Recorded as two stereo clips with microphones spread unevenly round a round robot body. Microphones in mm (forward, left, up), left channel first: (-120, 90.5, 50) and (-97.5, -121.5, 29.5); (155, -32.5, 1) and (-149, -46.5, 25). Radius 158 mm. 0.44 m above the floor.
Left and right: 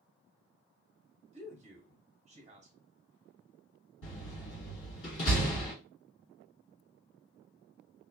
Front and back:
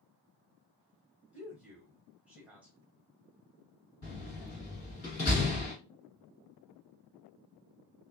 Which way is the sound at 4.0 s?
60° left.